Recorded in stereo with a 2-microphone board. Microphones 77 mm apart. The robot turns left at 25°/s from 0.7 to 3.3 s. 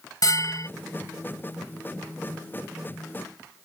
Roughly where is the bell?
Left.